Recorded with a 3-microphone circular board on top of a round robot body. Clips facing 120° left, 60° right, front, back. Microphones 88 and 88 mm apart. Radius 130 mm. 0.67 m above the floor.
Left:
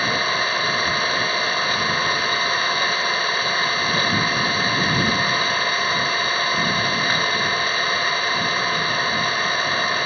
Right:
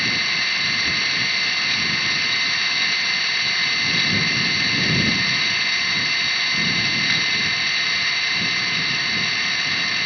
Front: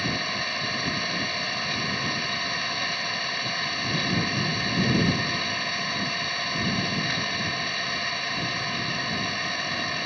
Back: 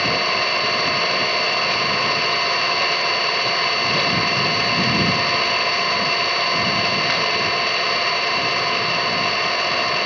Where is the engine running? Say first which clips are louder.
Left 5 dB, back 9 dB; straight behind.